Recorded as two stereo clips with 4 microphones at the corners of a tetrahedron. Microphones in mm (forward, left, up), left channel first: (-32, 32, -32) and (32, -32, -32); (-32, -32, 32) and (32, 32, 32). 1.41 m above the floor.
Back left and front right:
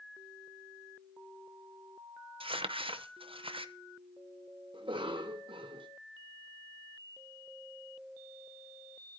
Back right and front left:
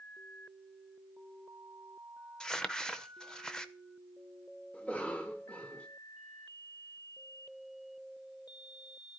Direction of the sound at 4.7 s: 60° right.